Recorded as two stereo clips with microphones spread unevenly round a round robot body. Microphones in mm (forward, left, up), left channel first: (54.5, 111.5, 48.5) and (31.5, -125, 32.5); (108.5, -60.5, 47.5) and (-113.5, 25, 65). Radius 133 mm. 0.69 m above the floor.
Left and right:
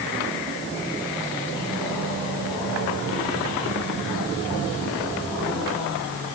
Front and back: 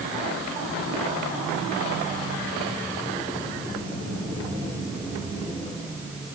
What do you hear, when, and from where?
Only background noise.